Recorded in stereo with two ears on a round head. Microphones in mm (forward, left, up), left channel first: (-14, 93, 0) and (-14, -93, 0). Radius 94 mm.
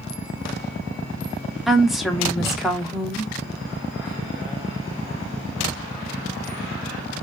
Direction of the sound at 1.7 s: Centre (ahead or behind).